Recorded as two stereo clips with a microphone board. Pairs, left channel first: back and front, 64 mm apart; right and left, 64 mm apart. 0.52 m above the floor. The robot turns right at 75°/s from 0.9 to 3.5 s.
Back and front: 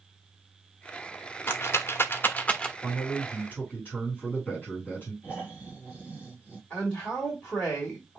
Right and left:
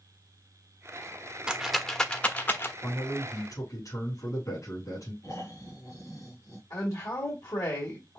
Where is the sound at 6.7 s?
110° right, 1.8 m.